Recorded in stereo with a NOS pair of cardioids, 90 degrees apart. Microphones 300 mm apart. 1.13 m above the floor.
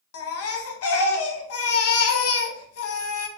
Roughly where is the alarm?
I don't hear an alarm.